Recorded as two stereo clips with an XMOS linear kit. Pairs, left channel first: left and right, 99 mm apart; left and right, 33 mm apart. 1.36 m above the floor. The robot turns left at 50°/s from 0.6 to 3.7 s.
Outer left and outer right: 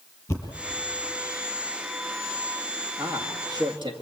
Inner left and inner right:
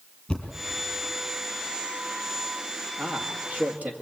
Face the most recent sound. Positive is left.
turn(degrees=-55)